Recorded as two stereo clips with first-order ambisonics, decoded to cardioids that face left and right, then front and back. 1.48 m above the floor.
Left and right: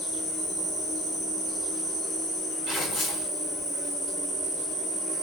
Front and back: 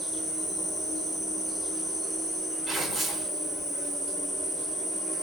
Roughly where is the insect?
Left.